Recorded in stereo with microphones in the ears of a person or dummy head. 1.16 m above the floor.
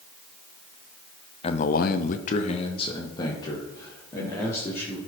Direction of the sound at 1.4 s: 30° left (ahead or behind).